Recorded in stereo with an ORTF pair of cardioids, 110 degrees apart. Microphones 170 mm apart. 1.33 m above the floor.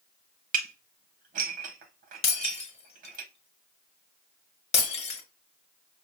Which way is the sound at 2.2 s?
40° left.